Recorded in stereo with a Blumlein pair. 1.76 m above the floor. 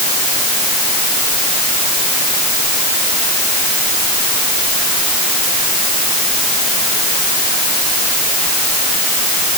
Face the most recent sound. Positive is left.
No sound to turn to.